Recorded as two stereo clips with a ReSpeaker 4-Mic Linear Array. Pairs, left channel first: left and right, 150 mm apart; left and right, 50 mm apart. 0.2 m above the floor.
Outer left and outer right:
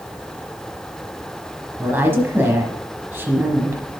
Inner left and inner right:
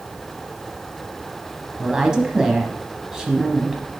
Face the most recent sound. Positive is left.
turn(degrees=-15)  # may be behind; listen again after turning